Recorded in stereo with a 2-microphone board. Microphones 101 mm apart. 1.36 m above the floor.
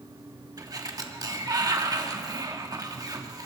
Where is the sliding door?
40° right (ahead or behind), 1.5 m.